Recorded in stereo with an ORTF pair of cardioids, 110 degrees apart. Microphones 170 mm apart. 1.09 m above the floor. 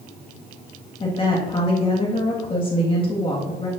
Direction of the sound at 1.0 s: 30° left.